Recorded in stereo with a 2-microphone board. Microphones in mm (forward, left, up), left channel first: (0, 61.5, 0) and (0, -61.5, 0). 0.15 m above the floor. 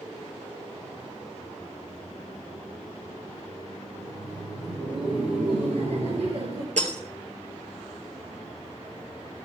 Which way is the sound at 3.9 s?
70° right (ahead or behind).